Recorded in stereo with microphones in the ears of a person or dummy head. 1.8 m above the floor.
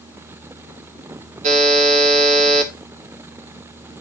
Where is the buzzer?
35° right (ahead or behind), 1.8 m.